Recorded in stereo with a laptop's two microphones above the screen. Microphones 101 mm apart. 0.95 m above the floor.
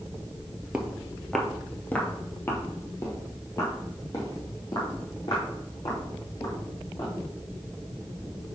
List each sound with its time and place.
0.7 s footsteps: 10° right (ahead or behind), 0.9 m; by 7.1 s 40° left (ahead or behind), 3.5 m